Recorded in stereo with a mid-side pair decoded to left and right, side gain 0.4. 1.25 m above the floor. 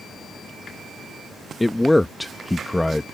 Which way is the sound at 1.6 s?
5° left.